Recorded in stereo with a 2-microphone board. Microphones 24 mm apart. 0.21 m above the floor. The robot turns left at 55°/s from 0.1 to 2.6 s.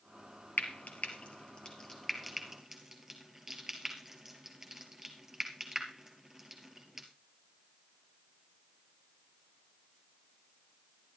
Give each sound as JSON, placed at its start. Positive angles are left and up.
{"t": 0.6, "sound": "frying", "side_deg": 75, "distance_m": 3.0}